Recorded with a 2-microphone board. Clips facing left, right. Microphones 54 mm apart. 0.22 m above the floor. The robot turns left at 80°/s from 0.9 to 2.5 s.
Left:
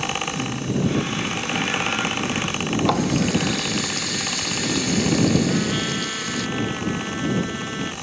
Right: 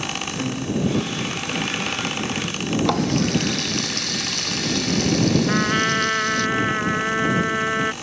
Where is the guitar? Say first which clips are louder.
Right 3 dB; 35° right; by 1.4 s 75° right.